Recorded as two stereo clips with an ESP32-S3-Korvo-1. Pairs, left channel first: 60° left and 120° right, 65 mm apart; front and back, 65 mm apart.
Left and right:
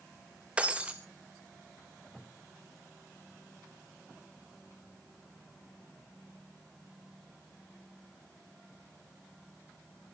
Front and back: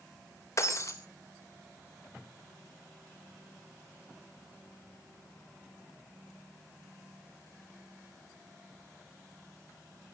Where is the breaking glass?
45° right, 1.8 m.